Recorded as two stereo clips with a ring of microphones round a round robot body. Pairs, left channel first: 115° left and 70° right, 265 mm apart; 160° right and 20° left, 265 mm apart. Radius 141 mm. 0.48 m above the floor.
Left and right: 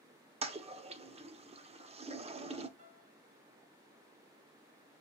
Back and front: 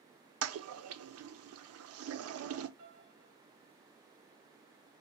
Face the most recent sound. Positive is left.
turn(degrees=0)